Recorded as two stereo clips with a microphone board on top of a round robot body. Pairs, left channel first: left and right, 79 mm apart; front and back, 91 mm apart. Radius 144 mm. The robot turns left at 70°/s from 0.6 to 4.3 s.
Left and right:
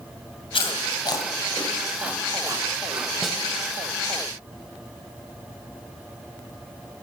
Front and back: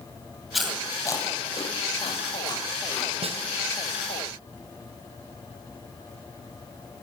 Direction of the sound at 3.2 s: 175° right.